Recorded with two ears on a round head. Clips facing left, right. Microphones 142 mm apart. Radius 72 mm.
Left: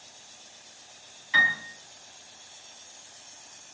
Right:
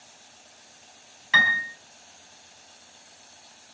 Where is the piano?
75° right (ahead or behind), 4 m.